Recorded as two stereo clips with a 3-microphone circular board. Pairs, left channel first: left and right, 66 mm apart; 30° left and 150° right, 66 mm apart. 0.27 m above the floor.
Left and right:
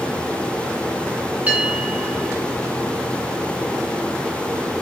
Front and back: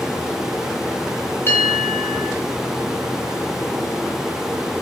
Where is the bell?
25° right, 3 m.